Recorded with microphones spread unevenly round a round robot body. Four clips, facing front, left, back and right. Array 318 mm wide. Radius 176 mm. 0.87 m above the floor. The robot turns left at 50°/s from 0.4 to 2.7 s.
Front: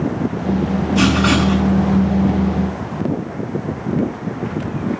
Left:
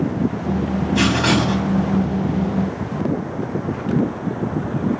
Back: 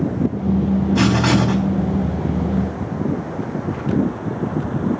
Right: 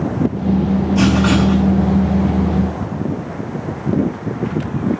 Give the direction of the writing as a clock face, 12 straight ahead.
7 o'clock.